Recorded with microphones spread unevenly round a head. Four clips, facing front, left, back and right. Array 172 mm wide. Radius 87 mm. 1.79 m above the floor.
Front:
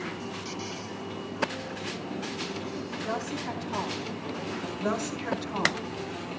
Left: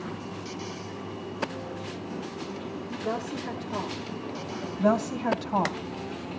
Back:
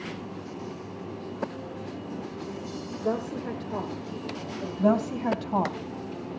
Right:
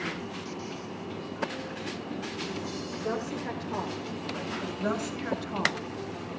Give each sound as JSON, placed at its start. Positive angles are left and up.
{"t": 3.0, "sound": "a woman speaking", "azimuth_deg": -165, "distance_m": 5.0}
{"t": 4.8, "sound": "a woman speaking", "azimuth_deg": 150, "distance_m": 2.5}